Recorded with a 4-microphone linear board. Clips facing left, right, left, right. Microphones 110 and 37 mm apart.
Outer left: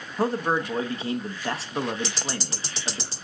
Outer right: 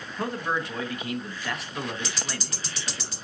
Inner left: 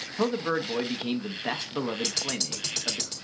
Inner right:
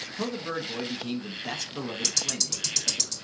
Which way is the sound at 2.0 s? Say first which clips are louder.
Outer left 3 dB, inner left 1 dB; 30° left (ahead or behind).